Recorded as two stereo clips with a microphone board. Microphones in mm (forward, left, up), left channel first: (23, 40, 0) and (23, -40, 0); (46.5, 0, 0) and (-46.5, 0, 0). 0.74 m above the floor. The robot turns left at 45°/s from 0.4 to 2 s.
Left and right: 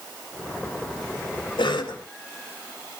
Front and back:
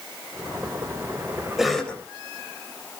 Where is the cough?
95° left, 3.5 m; by 2.0 s 75° left, 3.5 m.